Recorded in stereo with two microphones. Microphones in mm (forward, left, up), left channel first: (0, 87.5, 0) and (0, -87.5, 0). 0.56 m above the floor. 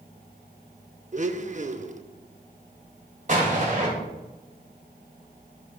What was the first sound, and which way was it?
A blender, 45° right (ahead or behind).